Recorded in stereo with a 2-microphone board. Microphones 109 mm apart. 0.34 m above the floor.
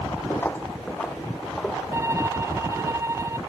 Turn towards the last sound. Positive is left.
turn(degrees=-25)  # may be behind; listen again after turning